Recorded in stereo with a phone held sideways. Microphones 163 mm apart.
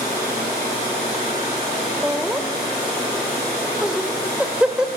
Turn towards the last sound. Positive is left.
turn(degrees=-5)  # may be behind; listen again after turning